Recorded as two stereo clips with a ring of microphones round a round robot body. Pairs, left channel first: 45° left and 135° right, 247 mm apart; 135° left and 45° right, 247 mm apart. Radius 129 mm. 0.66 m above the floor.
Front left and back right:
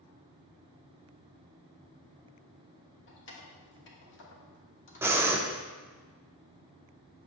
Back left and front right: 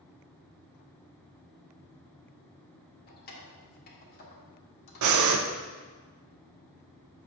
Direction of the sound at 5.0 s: 55° right.